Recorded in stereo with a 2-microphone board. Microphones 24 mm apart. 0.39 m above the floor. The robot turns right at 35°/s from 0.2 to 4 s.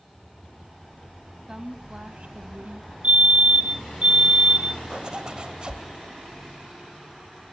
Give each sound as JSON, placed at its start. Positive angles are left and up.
{"t": 1.5, "sound": "a woman speaking", "azimuth_deg": -155, "distance_m": 2.5}
{"t": 3.0, "sound": "a fire alarm", "azimuth_deg": -80, "distance_m": 3.5}
{"t": 4.9, "sound": "a zipper", "side_deg": -35, "distance_m": 1.8}